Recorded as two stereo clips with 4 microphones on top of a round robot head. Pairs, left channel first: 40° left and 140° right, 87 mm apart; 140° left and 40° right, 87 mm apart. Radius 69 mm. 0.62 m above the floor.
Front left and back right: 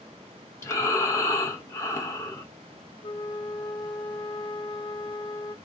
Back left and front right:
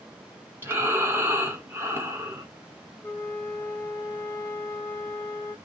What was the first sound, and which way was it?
Breathing, 10° left.